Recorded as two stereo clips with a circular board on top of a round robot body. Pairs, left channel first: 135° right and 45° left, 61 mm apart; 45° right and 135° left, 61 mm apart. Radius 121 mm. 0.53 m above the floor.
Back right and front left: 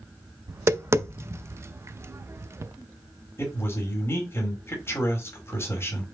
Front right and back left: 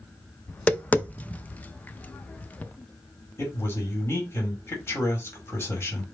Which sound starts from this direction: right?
A man speaking, at 3.4 s.